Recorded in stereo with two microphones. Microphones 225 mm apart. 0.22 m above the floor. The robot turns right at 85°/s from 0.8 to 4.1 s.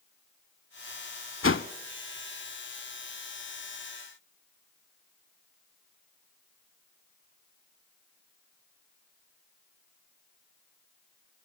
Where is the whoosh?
65° left (ahead or behind), 0.7 m; by 1.7 s 55° left (ahead or behind), 0.7 m.